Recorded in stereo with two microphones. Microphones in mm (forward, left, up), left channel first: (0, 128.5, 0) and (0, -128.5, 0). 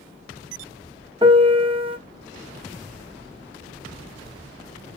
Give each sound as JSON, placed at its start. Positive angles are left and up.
{"t": 1.2, "sound": "a piano", "side_deg": -20, "distance_m": 0.6}